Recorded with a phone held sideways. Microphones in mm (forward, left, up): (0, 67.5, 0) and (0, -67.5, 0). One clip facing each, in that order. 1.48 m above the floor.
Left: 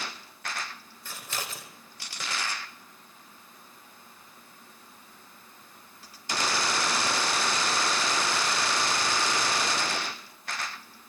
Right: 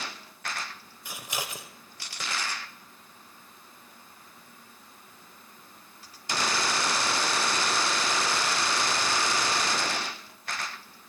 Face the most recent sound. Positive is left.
turn(degrees=-15)  # may be behind; listen again after turning